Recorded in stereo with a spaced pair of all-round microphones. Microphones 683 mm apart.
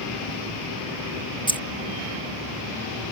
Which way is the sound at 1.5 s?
5° left (ahead or behind).